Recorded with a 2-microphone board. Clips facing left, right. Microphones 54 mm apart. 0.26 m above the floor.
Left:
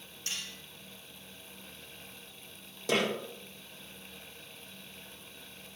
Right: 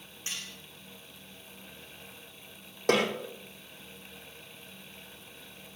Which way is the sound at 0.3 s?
20° right (ahead or behind).